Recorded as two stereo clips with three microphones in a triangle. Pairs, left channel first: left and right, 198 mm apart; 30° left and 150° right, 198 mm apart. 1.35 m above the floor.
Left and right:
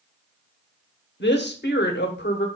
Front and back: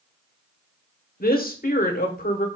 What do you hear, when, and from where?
1.2 s a woman speaking: 65° left, 0.9 m